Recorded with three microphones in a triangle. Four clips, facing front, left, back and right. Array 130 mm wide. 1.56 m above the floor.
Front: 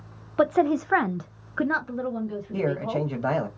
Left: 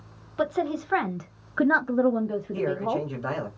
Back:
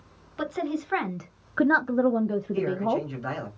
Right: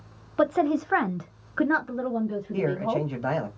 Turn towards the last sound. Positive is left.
turn(degrees=-20)